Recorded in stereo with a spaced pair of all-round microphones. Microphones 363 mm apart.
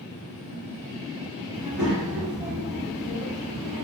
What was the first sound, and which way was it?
A child speaking, centre (ahead or behind).